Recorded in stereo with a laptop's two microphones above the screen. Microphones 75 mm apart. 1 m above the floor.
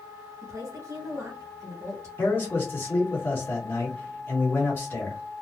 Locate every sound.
0.4 s a woman speaking: 45° right (ahead or behind), 1.3 m
2.2 s a man speaking: 30° left (ahead or behind), 1.4 m